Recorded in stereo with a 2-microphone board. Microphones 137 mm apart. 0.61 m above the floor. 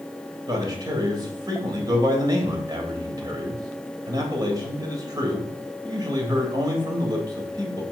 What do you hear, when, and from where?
0.5 s a man speaking: 30° right (ahead or behind), 2.5 m